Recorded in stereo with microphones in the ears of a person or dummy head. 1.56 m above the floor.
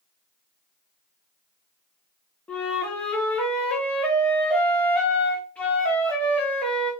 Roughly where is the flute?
Centre.